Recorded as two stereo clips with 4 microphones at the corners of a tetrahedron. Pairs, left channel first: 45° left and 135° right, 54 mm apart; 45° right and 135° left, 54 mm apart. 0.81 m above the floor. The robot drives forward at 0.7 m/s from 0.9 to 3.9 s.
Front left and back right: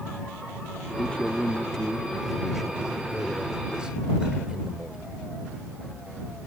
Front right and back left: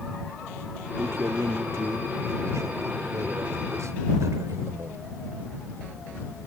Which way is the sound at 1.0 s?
110° left.